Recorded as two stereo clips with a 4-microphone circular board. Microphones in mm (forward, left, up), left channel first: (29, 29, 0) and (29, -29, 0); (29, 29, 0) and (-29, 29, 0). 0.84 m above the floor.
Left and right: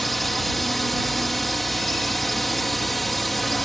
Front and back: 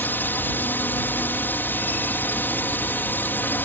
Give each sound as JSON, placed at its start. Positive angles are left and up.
{"t": 0.0, "sound": "a drone", "azimuth_deg": 5}